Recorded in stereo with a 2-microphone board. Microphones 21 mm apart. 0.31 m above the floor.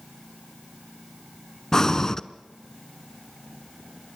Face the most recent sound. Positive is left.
turn(degrees=30)  # may be behind; listen again after turning